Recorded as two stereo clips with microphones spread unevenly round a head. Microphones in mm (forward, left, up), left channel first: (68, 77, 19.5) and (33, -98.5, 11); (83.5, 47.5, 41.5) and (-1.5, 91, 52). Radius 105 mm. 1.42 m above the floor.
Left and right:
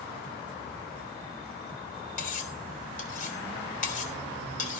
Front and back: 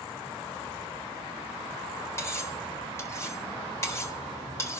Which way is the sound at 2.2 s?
35° left.